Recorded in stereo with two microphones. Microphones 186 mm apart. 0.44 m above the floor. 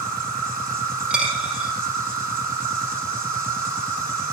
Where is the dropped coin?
5° right (ahead or behind), 5.5 m.